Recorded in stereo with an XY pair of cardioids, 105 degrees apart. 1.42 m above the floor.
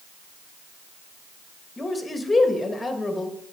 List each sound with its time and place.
1.8 s a man speaking: 20° left, 1.9 m